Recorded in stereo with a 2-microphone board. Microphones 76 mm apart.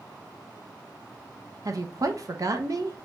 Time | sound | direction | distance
1.6 | a woman speaking | 50° right (ahead or behind) | 0.8 m